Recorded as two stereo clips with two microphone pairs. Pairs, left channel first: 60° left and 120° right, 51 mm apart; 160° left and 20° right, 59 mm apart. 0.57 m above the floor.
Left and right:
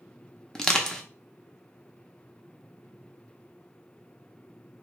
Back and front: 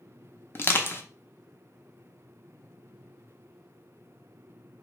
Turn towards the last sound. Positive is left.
turn(degrees=135)